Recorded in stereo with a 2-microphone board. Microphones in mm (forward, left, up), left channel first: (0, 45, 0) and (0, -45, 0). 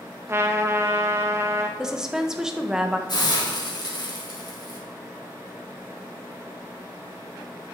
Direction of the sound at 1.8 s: 5° right (ahead or behind).